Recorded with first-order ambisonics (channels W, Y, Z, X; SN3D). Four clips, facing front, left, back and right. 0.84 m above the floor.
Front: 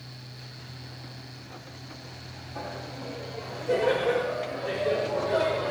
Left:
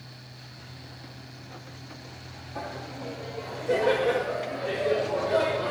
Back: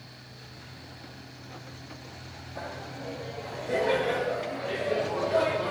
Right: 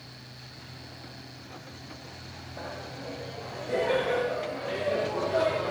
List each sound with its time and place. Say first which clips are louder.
2.5 s laughter: left 3 dB, front 1 dB; 65° left, 3 m; by 5.7 s 55° left, 6 m